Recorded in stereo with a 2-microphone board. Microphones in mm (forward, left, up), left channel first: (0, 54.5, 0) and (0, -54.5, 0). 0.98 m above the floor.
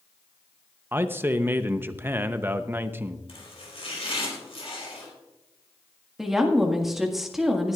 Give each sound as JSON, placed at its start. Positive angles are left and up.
{"t": 0.9, "sound": "a man speaking", "side_deg": -20, "distance_m": 0.6}
{"t": 3.3, "sound": "chopping", "side_deg": 65, "distance_m": 4.0}
{"t": 6.2, "sound": "a woman speaking", "side_deg": 0, "distance_m": 1.7}